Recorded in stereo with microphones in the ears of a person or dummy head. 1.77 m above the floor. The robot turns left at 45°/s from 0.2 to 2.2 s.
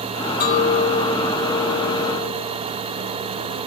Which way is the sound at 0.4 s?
60° left.